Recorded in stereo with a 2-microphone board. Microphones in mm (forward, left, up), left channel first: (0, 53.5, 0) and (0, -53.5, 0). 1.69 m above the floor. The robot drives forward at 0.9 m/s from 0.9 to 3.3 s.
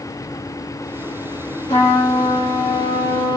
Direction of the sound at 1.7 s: 80° left.